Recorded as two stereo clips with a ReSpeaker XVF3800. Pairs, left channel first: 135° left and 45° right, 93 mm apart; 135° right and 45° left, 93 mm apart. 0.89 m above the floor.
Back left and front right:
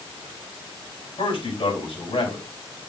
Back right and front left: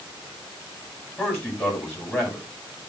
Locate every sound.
1.2 s a man speaking: 155° left, 6.5 m